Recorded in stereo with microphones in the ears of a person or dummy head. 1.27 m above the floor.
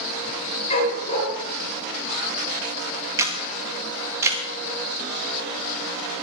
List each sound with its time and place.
0.7 s a dog barking: 40° left (ahead or behind), 8.5 m
3.2 s a camera shutter: 15° right (ahead or behind), 2 m